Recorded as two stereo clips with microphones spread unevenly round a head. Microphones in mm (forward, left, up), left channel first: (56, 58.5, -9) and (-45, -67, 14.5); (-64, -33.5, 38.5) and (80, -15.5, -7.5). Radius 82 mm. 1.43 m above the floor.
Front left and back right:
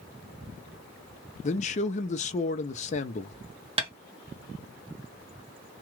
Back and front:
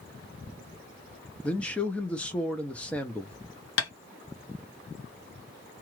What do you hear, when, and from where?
1.4 s a man speaking: 100° left, 0.6 m
3.8 s tapping: 170° left, 1.1 m